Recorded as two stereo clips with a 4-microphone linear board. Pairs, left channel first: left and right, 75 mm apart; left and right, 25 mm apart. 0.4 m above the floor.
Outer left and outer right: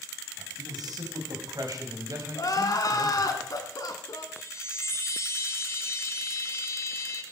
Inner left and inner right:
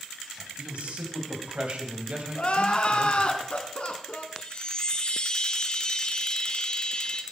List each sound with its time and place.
0.4 s a man speaking: 65° right (ahead or behind), 3 m; by 3.4 s 40° right (ahead or behind), 2 m
2.4 s crying: 60° left (ahead or behind), 1.2 m
4.3 s a chime: 40° left (ahead or behind), 1.1 m